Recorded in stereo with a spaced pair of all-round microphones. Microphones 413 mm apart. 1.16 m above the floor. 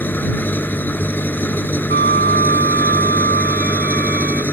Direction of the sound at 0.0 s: 5° left (ahead or behind).